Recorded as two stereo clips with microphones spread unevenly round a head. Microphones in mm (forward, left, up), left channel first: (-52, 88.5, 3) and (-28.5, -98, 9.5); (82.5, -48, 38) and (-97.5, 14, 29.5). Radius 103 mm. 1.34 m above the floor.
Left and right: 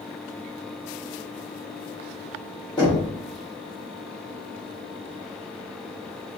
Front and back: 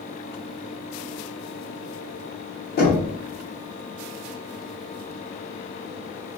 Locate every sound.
2.8 s knocking: 25° left, 0.9 m